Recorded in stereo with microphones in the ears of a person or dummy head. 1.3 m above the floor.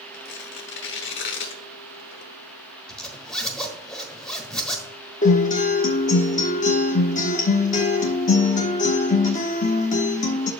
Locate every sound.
0.1 s tearing paper: 55° left (ahead or behind), 1.0 m
2.9 s a zipper: 10° left (ahead or behind), 1.4 m
5.2 s a guitar: 35° left (ahead or behind), 1.3 m